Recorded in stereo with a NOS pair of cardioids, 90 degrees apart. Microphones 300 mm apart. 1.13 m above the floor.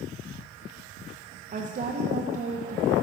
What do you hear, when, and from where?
1.5 s a woman speaking: 25° right, 0.5 m